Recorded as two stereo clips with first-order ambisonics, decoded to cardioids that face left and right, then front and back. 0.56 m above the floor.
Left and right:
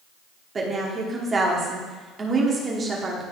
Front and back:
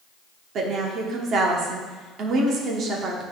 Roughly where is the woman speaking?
Behind right.